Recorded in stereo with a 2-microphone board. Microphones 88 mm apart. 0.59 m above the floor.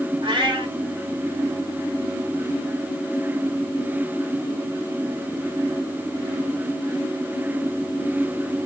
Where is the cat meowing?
75° right (ahead or behind), 1.0 m.